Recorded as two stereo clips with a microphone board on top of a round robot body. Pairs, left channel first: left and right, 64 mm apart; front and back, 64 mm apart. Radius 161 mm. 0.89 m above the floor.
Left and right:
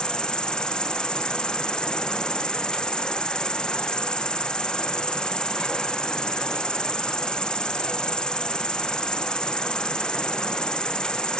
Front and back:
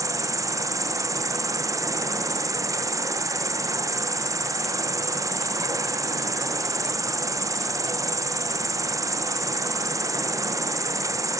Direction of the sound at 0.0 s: 170° left.